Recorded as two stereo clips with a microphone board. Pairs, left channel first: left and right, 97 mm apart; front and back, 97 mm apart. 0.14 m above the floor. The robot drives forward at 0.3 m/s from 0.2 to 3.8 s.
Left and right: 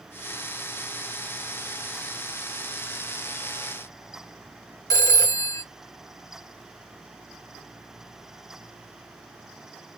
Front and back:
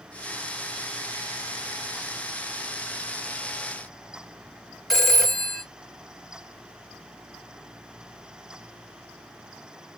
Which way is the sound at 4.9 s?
85° left.